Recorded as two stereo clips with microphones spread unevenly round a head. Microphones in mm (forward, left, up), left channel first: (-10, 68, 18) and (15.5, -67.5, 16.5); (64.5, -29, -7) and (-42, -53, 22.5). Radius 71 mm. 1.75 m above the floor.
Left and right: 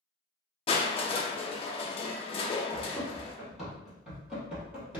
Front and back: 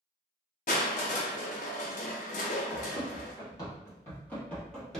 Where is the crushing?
50° left, 0.6 m.